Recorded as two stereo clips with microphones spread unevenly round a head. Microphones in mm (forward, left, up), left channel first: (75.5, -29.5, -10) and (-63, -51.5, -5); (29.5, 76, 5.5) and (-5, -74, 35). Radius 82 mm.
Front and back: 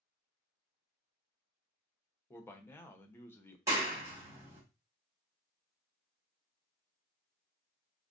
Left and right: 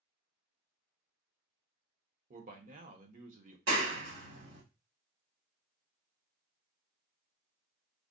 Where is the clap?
100° right, 2.5 m.